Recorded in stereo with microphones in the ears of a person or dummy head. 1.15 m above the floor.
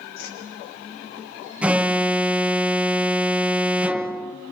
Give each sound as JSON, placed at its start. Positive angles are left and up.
{"t": 0.2, "sound": "a whoosh", "side_deg": 75, "distance_m": 6.0}
{"t": 1.6, "sound": "an alarm", "side_deg": -10, "distance_m": 0.7}